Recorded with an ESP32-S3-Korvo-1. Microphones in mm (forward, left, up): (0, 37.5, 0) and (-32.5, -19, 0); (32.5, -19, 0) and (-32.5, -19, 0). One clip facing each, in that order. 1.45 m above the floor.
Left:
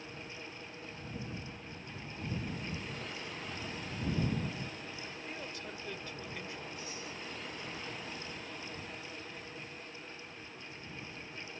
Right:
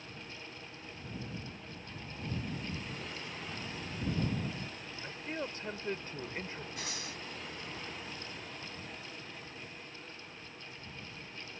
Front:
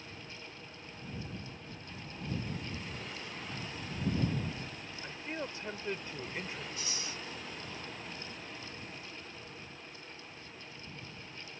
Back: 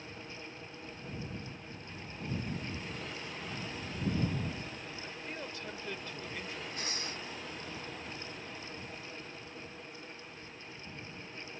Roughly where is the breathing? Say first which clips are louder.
Right 1 dB, back 2 dB; behind right.